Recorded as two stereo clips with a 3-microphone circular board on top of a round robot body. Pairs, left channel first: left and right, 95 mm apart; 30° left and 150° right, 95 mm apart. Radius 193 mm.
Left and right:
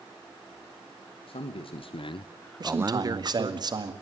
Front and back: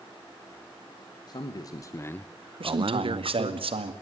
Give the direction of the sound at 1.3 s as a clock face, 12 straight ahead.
10 o'clock.